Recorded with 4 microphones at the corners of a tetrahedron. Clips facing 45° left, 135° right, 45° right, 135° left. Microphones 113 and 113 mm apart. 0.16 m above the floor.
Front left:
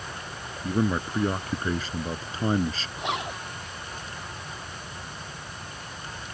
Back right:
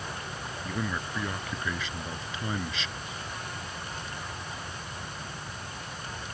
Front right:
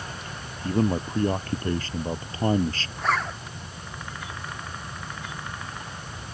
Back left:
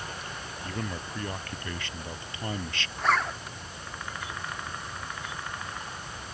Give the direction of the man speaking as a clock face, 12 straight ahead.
12 o'clock.